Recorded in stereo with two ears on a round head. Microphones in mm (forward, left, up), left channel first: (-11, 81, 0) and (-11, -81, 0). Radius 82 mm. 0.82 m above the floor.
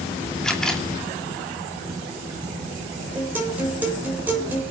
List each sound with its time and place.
0.4 s a camera shutter: 5° left (ahead or behind), 2 m
3.1 s a guitar: 10° right (ahead or behind), 4 m